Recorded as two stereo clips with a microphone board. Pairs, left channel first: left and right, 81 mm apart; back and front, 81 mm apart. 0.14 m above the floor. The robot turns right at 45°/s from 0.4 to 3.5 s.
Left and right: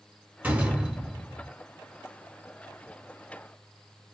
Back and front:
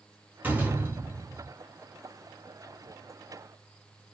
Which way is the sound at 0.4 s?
40° right.